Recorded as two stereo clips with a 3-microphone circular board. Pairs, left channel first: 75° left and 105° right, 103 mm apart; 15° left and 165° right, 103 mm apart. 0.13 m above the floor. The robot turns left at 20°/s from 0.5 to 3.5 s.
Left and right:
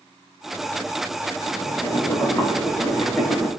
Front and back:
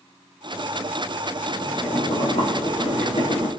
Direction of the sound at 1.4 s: 30° left.